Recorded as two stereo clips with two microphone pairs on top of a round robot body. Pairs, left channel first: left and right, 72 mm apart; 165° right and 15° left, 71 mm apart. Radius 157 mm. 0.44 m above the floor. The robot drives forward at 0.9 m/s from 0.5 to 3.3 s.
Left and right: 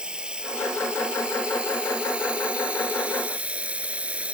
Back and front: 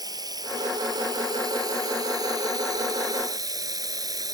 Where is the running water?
10° right; by 4.4 s 15° right.